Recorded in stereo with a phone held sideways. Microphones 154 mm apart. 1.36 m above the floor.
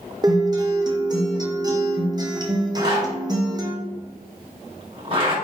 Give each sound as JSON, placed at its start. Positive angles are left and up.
{"t": 0.2, "sound": "a guitar", "side_deg": -25, "distance_m": 0.7}
{"t": 2.8, "sound": "a zipper", "side_deg": -35, "distance_m": 1.7}